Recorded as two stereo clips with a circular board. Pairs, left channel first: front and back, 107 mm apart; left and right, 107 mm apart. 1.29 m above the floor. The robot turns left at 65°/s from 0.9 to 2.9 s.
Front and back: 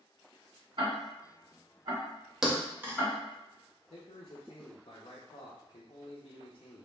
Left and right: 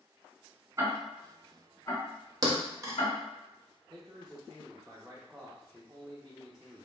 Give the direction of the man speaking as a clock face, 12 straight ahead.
12 o'clock.